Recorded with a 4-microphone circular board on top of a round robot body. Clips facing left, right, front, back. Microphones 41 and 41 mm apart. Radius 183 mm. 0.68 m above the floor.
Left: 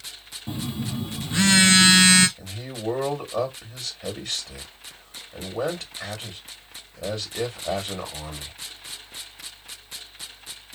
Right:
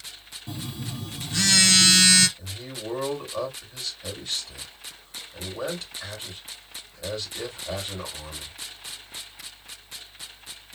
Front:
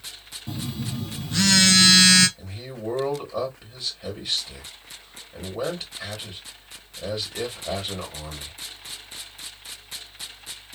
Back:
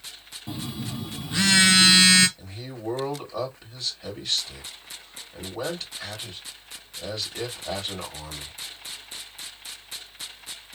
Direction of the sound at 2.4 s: 80° left.